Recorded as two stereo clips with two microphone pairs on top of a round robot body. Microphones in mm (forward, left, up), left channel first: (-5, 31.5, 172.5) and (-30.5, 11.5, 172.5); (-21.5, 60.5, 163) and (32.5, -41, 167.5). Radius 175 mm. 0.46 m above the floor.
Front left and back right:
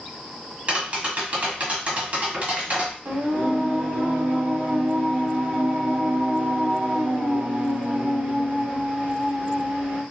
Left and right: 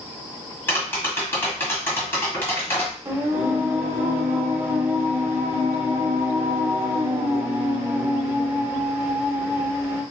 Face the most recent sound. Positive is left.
turn(degrees=-130)